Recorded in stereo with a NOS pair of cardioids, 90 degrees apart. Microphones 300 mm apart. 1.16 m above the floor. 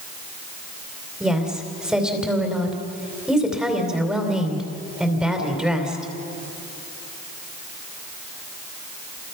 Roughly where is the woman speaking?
Ahead.